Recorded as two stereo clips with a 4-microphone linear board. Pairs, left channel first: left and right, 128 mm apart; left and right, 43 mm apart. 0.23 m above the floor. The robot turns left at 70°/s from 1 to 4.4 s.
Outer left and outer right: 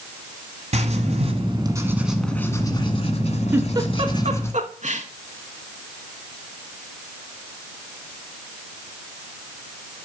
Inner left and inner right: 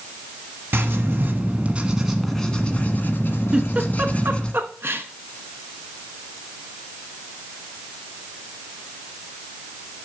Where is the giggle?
15° right (ahead or behind), 0.9 m; by 5.0 s 70° right (ahead or behind), 0.9 m.